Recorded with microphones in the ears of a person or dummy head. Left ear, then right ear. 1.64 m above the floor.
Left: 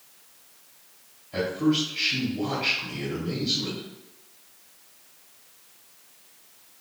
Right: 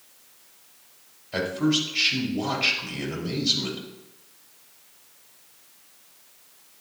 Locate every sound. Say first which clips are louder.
1.3 s a man speaking: right 1 dB; 50° right (ahead or behind), 3.5 m